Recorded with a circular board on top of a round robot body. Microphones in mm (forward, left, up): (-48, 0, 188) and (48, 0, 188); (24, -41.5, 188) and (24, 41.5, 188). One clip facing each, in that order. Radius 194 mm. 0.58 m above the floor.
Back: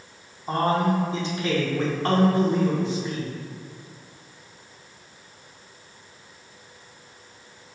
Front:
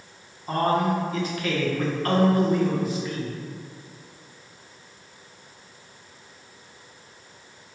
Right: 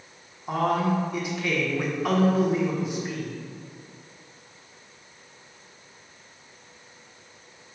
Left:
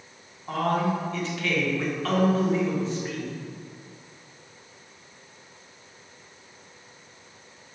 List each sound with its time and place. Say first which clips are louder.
0.5 s a man speaking: even, right 1 dB; 150° right, 1.2 m